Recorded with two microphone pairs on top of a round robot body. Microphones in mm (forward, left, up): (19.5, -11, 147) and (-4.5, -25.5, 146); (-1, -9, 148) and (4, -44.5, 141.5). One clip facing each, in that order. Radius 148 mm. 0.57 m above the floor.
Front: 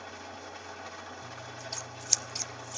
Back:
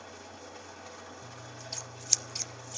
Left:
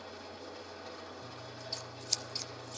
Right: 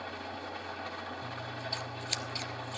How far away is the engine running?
About 3 m.